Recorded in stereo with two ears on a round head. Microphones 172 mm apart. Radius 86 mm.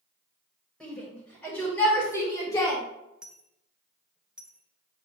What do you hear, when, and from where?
0.8 s a shout: 5° left (ahead or behind), 4 m; by 2.8 s 25° left (ahead or behind), 2.5 m
3.2 s a dropped coin: 5° right (ahead or behind), 0.8 m